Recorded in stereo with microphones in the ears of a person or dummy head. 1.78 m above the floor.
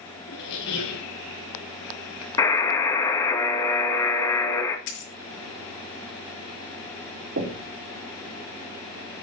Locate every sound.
0.3 s a squeak: 70° left (ahead or behind), 2.5 m
2.4 s a buzzer: 20° left (ahead or behind), 1.9 m
4.9 s a dropped coin: 70° left (ahead or behind), 4.5 m
7.4 s knocking: 60° right (ahead or behind), 2 m